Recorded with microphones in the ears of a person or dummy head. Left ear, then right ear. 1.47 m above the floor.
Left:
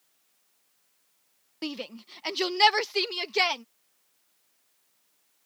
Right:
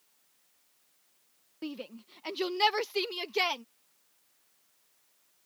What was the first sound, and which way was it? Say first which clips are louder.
A shout: left 5 dB; 40° left (ahead or behind).